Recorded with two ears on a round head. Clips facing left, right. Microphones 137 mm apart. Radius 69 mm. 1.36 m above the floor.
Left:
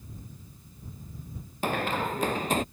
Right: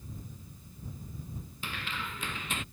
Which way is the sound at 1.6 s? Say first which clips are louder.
Left 13 dB; 40° left (ahead or behind).